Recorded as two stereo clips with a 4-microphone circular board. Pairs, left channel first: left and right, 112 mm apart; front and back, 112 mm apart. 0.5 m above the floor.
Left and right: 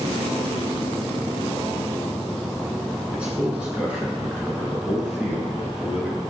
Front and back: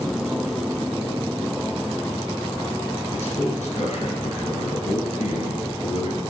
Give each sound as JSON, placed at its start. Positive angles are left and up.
{"t": 3.1, "sound": "a man speaking", "azimuth_deg": -10, "distance_m": 7.5}